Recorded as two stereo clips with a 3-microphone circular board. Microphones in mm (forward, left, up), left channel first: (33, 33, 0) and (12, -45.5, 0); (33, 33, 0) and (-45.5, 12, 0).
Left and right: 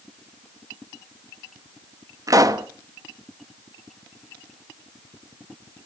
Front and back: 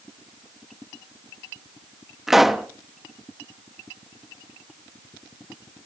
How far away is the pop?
About 0.9 m.